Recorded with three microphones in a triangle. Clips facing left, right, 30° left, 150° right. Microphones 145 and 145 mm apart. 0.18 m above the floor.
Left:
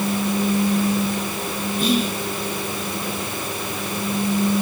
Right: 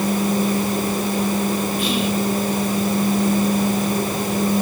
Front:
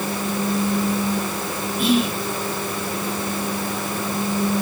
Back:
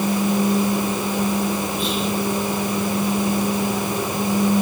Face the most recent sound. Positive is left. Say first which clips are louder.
# even, front 4 dB
turn(degrees=115)